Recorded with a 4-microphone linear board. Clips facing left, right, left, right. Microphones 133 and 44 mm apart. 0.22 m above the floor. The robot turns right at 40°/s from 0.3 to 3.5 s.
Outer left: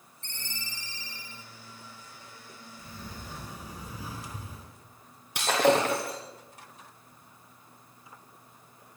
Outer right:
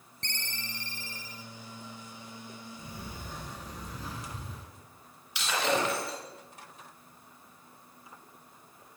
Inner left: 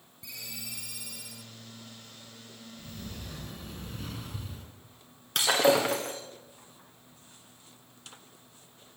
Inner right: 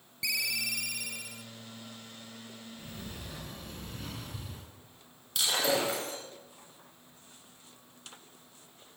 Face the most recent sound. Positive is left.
turn(degrees=50)  # may be behind; listen again after turning